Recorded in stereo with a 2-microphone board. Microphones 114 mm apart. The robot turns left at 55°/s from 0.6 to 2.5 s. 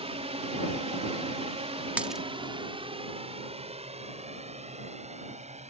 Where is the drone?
60° right (ahead or behind); by 5.7 s 75° right (ahead or behind).